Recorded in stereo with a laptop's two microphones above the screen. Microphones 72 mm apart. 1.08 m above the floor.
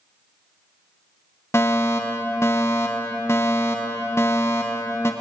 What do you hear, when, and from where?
1.5 s a fire alarm: 40° left (ahead or behind), 1.8 m